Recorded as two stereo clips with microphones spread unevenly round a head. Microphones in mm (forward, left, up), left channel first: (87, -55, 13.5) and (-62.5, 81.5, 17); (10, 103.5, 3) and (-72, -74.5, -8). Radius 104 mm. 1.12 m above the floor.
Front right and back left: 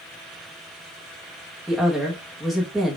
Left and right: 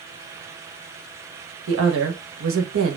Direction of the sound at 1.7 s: 135° right.